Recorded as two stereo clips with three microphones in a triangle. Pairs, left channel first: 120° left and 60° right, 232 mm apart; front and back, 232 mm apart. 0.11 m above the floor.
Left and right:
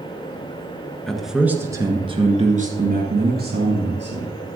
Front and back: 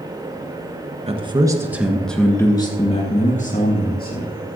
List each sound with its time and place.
1.1 s a man speaking: 155° right, 1.5 m; by 4.6 s 35° right, 2.5 m